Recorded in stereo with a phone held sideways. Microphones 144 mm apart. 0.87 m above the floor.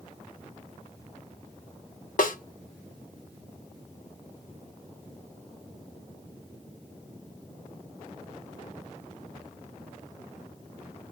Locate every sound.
2.2 s a snare drum: 70° left (ahead or behind), 1.0 m